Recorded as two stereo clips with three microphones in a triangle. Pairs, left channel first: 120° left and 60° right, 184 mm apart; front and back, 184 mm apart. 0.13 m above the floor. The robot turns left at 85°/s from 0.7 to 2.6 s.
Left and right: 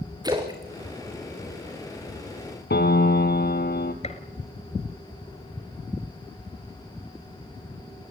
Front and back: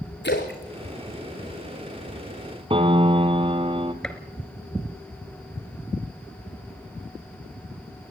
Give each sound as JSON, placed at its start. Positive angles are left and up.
{"t": 0.2, "sound": "a splash", "azimuth_deg": 5, "distance_m": 4.5}
{"t": 2.7, "sound": "a piano", "azimuth_deg": 120, "distance_m": 1.5}
{"t": 4.0, "sound": "a gunshot", "azimuth_deg": 85, "distance_m": 2.0}